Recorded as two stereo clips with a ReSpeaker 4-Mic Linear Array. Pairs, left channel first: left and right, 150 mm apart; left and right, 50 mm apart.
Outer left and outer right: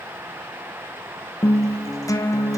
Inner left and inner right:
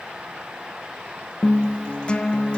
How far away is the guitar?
About 1.4 m.